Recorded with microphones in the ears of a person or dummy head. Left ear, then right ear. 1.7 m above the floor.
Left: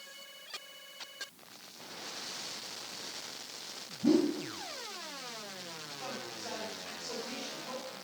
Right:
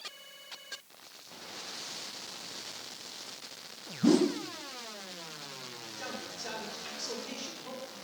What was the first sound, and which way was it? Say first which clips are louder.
A whoosh: right 2 dB; 70° right (ahead or behind).